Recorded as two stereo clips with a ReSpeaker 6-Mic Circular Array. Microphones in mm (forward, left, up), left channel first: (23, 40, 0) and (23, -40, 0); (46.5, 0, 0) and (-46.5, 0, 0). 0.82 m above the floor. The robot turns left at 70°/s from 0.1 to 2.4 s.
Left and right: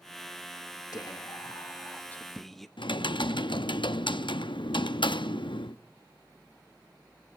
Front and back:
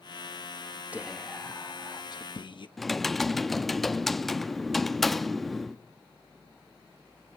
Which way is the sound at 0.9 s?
105° left.